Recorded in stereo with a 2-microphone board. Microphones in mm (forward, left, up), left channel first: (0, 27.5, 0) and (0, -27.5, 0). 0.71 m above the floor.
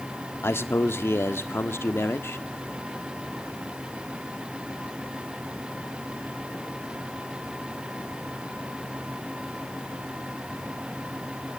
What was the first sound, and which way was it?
A man speaking, 55° left (ahead or behind).